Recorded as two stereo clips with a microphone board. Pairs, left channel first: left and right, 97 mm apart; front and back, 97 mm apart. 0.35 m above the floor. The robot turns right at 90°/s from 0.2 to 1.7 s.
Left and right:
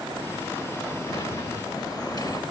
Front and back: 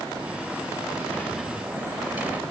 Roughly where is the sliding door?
Ahead left.